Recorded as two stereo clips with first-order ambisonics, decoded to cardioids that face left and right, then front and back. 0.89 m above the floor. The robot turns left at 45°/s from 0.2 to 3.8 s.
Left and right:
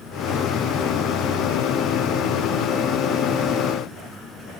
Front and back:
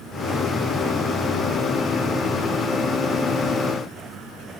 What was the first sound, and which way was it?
Only background noise.